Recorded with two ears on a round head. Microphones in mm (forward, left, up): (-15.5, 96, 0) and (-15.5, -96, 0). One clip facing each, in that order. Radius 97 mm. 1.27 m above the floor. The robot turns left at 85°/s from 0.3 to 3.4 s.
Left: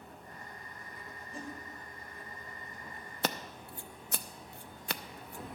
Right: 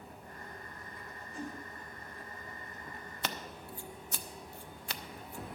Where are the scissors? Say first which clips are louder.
Left 5 dB; 35° left (ahead or behind), 0.6 m; by 5.5 s 50° left (ahead or behind), 0.6 m.